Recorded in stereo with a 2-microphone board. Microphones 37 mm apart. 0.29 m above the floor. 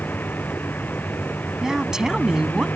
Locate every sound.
0.0 s a vehicle: 60° left (ahead or behind)
1.6 s a woman speaking: 20° right (ahead or behind)